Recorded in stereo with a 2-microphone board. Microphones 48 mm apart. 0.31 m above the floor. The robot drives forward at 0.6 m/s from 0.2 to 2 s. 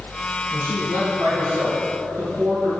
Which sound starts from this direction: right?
A man speaking, at 0.5 s.